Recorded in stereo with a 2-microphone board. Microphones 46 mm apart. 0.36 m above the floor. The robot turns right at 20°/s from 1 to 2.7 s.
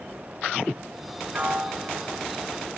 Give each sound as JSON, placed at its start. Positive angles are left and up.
{"t": 1.3, "sound": "a piano", "side_deg": -35}